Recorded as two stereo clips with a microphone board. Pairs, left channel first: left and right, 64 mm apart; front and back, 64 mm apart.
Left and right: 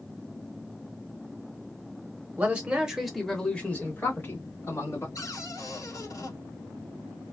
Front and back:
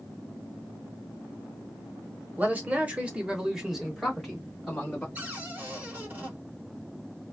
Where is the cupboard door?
120° left, 1.3 m.